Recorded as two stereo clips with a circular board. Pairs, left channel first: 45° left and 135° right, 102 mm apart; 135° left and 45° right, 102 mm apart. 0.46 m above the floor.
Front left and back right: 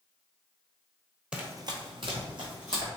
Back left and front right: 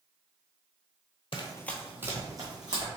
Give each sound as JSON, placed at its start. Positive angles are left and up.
{"t": 1.3, "sound": "running footsteps", "azimuth_deg": 145, "distance_m": 0.7}